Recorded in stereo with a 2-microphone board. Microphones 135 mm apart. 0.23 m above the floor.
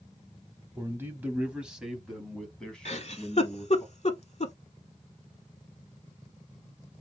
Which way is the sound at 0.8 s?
20° right (ahead or behind).